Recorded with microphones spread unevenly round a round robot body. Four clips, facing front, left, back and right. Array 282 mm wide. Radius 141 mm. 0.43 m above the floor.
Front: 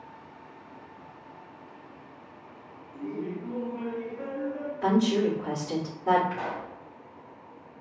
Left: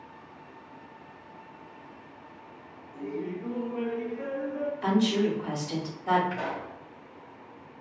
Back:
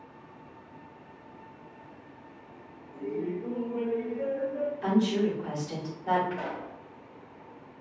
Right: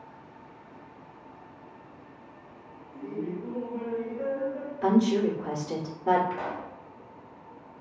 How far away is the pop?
About 1.5 m.